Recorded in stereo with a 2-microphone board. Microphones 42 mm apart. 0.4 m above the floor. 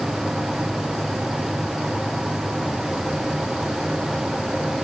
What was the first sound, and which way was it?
Only background noise.